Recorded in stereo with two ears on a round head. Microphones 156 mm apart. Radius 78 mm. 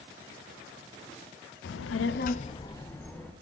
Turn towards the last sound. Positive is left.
turn(degrees=5)  # may be behind; listen again after turning